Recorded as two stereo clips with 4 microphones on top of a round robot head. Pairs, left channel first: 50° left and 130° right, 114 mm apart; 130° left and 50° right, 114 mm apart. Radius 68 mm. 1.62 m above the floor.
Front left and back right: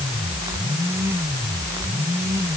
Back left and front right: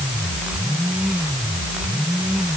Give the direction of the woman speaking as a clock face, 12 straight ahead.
No woman speaking in this recording.